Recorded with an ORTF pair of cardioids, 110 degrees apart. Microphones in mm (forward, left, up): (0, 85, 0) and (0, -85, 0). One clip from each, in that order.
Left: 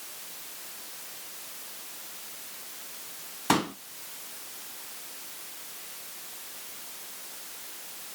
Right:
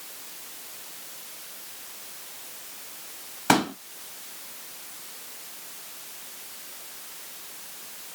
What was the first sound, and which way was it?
A pop, 30° right.